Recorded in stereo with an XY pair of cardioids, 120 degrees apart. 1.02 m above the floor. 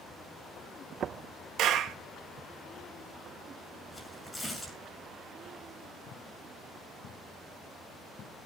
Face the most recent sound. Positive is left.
turn(degrees=15)